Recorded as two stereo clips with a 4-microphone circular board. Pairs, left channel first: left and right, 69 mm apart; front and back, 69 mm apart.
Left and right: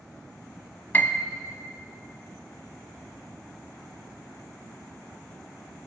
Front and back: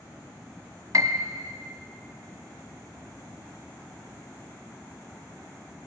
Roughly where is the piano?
Behind left.